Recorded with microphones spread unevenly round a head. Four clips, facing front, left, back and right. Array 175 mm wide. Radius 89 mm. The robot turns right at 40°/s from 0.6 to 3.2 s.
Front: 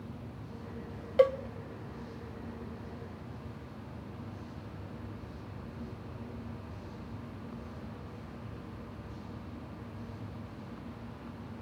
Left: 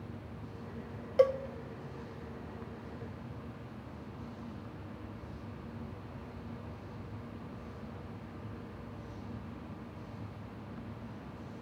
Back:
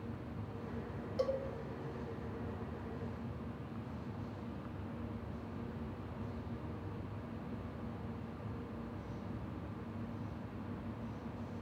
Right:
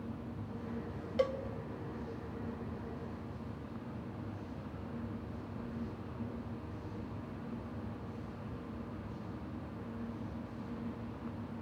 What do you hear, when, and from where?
1.2 s a cowbell: 40° left, 1.0 m; by 1.4 s 45° left, 1.0 m